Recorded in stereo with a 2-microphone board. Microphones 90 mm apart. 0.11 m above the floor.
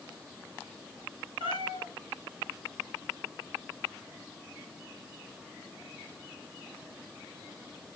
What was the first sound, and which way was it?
A cat meowing, 70° right (ahead or behind).